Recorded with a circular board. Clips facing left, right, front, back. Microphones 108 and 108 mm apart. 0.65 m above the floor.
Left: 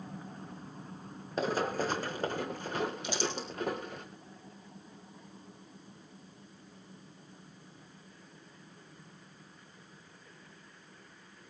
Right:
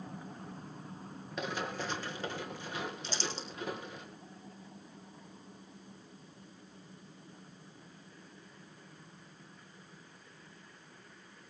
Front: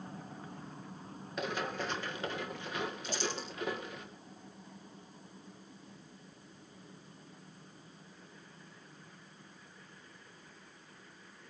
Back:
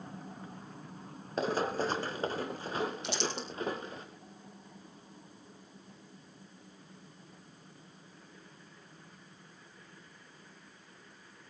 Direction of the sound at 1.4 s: 135° left.